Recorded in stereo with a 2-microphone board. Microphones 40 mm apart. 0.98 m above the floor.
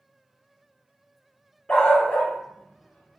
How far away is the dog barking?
About 0.7 m.